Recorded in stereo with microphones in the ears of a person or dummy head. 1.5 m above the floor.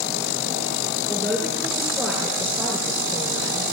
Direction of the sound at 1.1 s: 10° right (ahead or behind).